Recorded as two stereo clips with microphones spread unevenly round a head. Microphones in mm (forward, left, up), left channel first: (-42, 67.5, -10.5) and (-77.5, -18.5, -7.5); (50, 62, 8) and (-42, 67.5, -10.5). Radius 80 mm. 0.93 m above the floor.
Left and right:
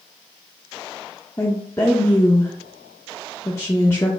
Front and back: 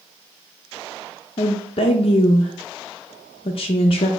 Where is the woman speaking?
5° left, 0.6 m.